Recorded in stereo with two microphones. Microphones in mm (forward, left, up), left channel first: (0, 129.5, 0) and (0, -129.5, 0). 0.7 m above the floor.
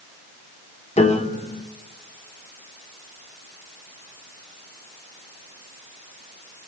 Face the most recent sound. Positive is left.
turn(degrees=25)  # may be behind; listen again after turning